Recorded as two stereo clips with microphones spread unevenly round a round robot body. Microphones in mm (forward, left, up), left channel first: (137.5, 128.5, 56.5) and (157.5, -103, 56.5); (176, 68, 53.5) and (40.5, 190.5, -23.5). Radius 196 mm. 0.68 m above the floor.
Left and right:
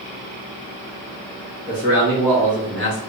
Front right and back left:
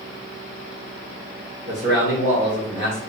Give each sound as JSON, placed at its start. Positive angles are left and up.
{"t": 1.7, "sound": "a man speaking", "azimuth_deg": -160, "distance_m": 1.7}